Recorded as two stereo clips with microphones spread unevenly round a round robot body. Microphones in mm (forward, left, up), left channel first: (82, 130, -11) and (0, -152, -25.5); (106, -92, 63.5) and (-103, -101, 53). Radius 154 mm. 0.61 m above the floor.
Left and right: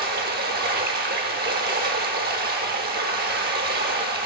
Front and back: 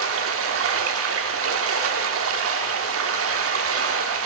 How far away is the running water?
About 0.7 m.